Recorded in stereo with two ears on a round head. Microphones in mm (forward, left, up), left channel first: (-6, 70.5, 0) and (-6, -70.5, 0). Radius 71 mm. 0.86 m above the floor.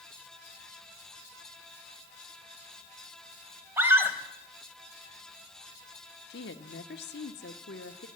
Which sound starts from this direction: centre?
A scream, at 3.8 s.